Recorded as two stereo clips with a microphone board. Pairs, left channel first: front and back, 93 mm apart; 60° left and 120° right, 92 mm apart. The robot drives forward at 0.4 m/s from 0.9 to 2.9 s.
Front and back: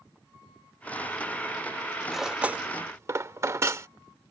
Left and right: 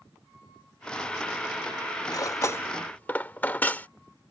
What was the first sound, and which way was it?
Cutlery clinking, 90° left.